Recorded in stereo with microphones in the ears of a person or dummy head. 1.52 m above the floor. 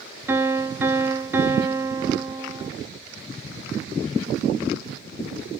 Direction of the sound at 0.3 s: 15° right (ahead or behind).